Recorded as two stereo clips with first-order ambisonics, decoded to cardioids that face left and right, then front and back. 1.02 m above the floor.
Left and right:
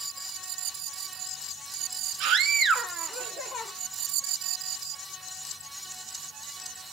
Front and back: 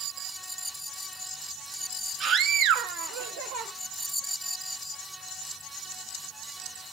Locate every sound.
2.2 s a scream: 120° right, 0.7 m; by 3.7 s 155° left, 1.0 m